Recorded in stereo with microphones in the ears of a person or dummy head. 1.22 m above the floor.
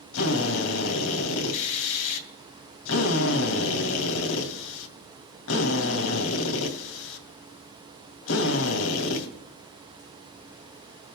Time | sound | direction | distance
0.1 | a drill | 75° left (ahead or behind) | 2.5 m